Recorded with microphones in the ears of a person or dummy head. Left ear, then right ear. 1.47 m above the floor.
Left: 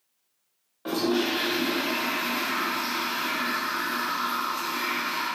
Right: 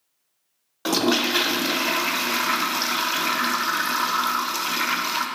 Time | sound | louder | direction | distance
0.8 | a toilet flushing | right 5 dB | 75° right (ahead or behind) | 0.7 m